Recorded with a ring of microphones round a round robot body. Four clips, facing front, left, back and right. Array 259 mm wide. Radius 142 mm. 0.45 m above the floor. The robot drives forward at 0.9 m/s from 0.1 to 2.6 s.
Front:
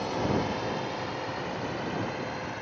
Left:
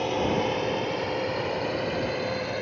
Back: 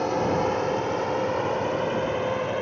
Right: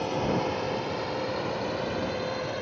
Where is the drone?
155° left; by 2.6 s 165° left.